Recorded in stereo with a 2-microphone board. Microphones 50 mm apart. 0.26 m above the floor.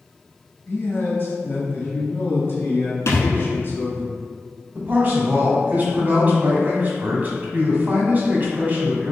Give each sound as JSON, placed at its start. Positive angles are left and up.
{"t": 0.7, "sound": "a man speaking", "side_deg": 45, "distance_m": 1.6}
{"t": 3.1, "sound": "a thud", "side_deg": 70, "distance_m": 1.0}
{"t": 4.8, "sound": "a man speaking", "side_deg": -35, "distance_m": 1.4}